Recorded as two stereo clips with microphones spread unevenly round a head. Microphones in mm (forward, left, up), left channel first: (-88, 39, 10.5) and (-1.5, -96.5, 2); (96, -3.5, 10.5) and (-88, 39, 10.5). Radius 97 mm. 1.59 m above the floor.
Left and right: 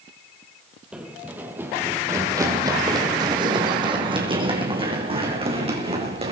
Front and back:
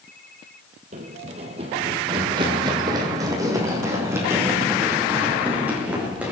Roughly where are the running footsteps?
Behind right.